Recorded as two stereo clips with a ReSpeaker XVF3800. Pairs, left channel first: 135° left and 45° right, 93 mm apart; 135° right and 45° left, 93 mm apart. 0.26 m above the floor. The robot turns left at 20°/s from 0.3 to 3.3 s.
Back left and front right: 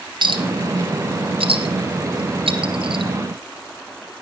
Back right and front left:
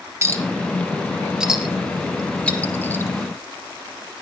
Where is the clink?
15° right, 2.5 m; by 3.1 s 70° right, 2.5 m.